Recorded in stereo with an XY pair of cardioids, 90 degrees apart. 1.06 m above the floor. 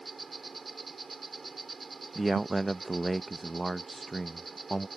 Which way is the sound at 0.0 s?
40° right.